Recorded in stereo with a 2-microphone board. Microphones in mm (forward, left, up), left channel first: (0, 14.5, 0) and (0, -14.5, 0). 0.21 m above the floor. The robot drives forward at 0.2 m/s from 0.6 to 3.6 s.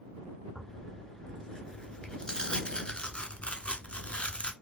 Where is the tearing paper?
25° left (ahead or behind), 1.0 m; by 4.5 s 45° left (ahead or behind), 0.6 m.